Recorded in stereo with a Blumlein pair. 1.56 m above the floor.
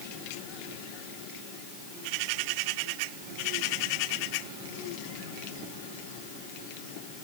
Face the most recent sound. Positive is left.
No sound to turn to.